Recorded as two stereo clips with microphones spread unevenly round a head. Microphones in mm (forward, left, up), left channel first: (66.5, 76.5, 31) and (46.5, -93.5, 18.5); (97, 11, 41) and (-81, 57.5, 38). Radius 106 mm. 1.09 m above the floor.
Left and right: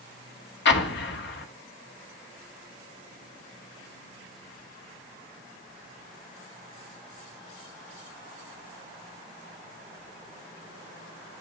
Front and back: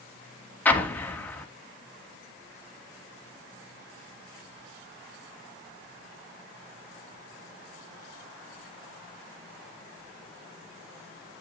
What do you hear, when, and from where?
0.7 s an explosion: 65° left, 1.9 m